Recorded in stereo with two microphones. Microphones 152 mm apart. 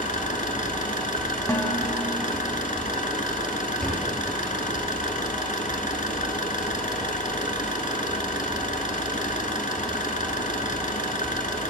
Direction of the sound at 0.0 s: 60° left (ahead or behind).